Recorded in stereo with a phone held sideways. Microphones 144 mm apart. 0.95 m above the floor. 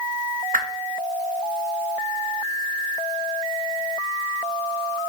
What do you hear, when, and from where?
0.5 s a whoosh: 70° right (ahead or behind), 0.7 m